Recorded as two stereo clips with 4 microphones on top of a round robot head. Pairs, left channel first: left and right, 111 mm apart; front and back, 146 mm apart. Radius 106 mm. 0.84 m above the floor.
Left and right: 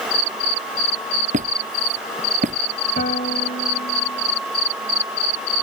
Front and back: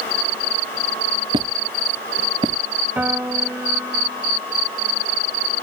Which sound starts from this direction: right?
A squeak, at 1.3 s.